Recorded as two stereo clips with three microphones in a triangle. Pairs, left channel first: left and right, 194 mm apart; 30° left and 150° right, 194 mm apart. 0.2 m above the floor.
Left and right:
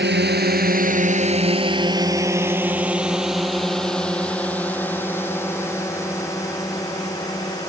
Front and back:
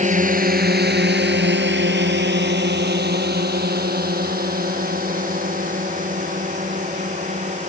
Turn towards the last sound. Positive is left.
turn(degrees=160)